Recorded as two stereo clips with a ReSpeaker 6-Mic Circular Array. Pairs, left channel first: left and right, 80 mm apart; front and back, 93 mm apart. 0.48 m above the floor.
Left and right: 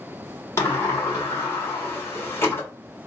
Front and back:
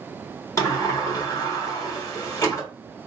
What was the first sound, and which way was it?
A sliding door, 45° left.